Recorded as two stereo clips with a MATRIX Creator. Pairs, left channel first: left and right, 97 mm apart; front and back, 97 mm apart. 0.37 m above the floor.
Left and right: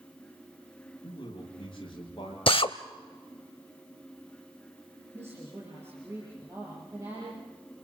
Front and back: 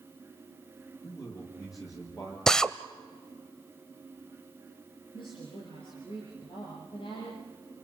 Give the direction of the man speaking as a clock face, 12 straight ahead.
10 o'clock.